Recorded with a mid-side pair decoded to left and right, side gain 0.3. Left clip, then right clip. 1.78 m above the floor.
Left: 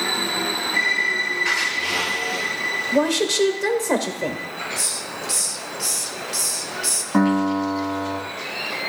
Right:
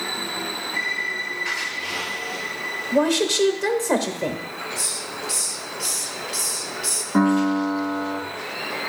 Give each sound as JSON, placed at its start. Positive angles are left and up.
{"t": 2.9, "sound": "a woman speaking", "azimuth_deg": 15, "distance_m": 1.1}
{"t": 4.8, "sound": "a hiss", "azimuth_deg": 35, "distance_m": 0.7}
{"t": 7.1, "sound": "a piano", "azimuth_deg": 65, "distance_m": 1.6}